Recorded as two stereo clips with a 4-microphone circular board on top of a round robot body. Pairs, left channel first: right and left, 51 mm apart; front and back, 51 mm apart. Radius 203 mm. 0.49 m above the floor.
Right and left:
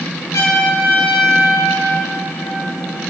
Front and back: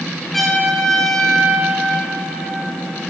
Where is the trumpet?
90° right, 2 m.